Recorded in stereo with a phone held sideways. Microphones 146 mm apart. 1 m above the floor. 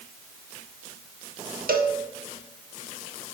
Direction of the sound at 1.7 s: 75° right (ahead or behind).